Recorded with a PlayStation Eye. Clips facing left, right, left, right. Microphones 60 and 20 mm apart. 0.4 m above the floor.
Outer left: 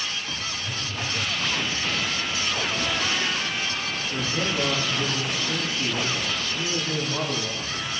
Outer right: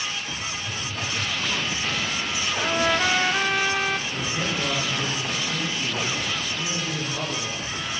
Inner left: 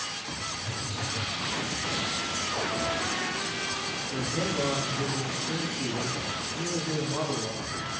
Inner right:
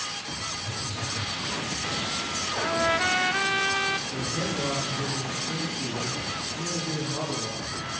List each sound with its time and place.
0.6 s a phone buzzing: 60° left (ahead or behind), 7.5 m
2.6 s a trumpet: 60° right (ahead or behind), 1.1 m
4.1 s a man speaking: 30° left (ahead or behind), 7.5 m